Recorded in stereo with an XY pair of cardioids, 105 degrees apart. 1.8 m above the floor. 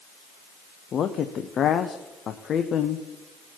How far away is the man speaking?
About 0.8 m.